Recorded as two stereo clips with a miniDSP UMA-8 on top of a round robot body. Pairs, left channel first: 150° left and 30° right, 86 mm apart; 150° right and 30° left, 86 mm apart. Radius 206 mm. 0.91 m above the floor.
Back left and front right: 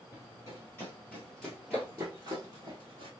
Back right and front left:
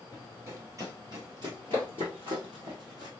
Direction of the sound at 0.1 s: 95° left.